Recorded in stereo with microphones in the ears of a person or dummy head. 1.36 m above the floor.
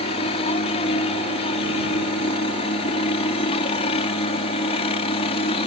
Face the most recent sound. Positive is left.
turn(degrees=35)  # may be behind; listen again after turning